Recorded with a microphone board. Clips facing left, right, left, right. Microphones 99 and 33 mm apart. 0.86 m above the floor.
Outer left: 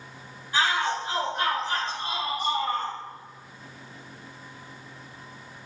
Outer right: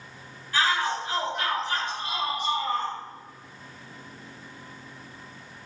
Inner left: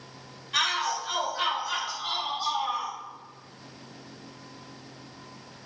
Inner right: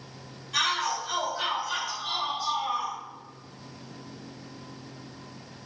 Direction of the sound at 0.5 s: 25° left (ahead or behind).